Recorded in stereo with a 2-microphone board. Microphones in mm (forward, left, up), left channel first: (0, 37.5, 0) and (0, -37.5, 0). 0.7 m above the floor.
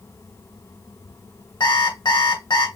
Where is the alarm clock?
85° left, 2.5 m.